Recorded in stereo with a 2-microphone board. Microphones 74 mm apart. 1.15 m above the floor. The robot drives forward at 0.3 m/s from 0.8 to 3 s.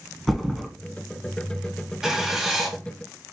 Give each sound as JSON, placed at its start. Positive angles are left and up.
{"t": 0.3, "sound": "a thud", "side_deg": 0, "distance_m": 1.1}
{"t": 2.0, "sound": "writing", "side_deg": -10, "distance_m": 1.3}